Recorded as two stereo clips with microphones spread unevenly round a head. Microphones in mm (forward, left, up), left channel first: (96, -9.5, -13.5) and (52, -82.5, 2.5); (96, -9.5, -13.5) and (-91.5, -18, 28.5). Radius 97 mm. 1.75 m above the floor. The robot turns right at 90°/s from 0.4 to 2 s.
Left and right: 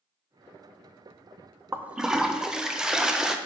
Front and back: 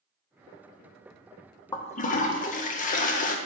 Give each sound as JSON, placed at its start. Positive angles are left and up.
{"t": 1.7, "sound": "a toilet flushing", "azimuth_deg": -75, "distance_m": 0.6}